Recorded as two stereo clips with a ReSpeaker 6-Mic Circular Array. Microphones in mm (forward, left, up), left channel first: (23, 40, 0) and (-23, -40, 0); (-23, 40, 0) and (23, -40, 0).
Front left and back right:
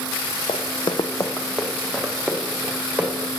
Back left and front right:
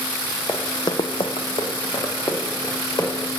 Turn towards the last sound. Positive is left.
turn(degrees=160)